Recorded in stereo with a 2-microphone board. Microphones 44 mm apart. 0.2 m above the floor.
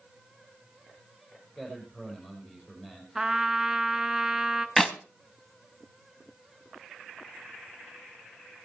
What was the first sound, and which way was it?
A man speaking, 15° left (ahead or behind).